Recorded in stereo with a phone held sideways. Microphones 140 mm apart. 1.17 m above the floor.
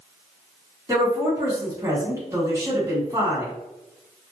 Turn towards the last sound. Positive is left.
turn(degrees=-20)  # may be behind; listen again after turning